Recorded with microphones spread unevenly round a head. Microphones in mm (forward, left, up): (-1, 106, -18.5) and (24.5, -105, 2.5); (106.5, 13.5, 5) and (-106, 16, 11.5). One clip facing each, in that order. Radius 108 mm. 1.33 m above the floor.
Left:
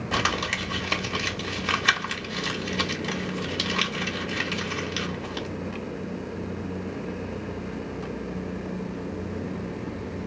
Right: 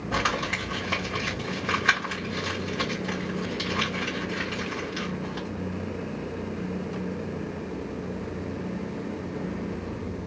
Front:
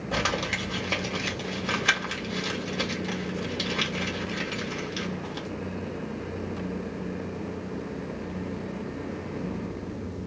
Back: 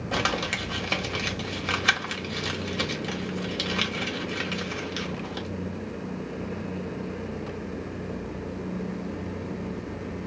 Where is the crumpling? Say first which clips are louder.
Right 1 dB, even; 120° left, 1.1 m.